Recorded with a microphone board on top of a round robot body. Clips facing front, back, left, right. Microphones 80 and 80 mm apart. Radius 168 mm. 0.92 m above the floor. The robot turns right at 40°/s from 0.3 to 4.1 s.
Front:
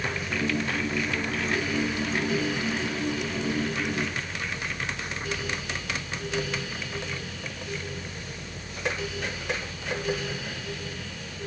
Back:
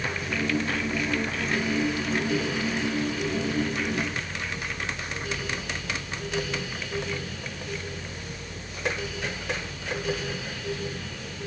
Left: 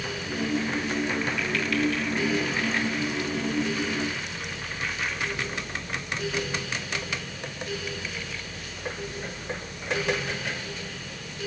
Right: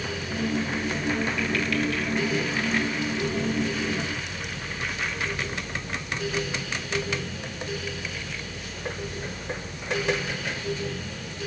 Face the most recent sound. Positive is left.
No sound to turn to.